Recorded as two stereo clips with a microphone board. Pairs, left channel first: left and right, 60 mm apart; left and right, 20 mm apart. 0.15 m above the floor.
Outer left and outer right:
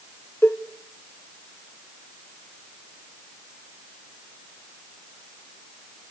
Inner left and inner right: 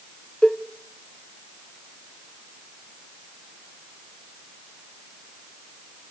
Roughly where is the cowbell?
Left.